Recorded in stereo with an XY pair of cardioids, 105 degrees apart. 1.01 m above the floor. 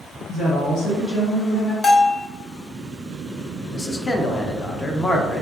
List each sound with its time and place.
0.3 s a woman speaking: 50° left, 0.6 m; by 1.7 s 70° left, 1.5 m
1.8 s a bell: 30° left, 0.5 m
3.7 s a man speaking: 25° left, 0.5 m